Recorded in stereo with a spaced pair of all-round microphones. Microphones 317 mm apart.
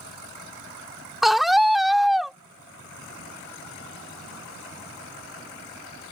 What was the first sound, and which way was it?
A scream, centre (ahead or behind).